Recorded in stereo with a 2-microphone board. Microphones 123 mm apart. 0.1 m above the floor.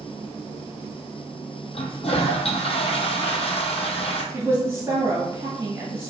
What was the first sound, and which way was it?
A toilet flushing, 55° left (ahead or behind).